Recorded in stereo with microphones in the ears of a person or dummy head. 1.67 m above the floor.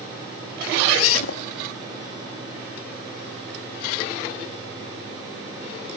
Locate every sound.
0.6 s a zipper: 85° left